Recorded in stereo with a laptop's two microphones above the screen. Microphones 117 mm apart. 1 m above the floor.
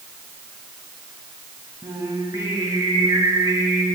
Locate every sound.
1.8 s singing: 30° right (ahead or behind), 5 m